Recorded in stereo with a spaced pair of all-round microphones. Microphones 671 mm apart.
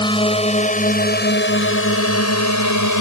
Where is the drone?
5° left (ahead or behind); by 3.0 s 25° left (ahead or behind).